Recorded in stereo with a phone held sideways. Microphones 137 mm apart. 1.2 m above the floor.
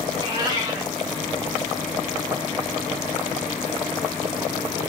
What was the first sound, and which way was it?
A cat meowing, 30° right (ahead or behind).